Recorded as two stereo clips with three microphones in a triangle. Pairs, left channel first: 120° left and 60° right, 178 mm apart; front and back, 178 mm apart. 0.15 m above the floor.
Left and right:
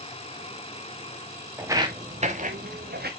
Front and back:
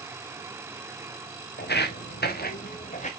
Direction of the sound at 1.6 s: 15° left.